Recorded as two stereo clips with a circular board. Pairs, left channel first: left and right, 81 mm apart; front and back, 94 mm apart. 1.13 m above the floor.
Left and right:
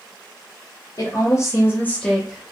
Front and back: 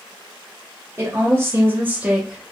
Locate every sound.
1.0 s a woman speaking: 120° left, 1.0 m; by 2.5 s 95° right, 0.6 m